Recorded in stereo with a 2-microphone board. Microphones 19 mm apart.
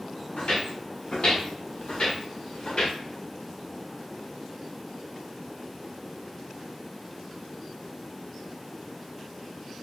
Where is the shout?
I don't hear a shout.